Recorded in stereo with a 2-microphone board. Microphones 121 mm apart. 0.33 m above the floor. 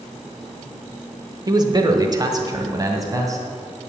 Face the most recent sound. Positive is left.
turn(degrees=-25)  # may be behind; listen again after turning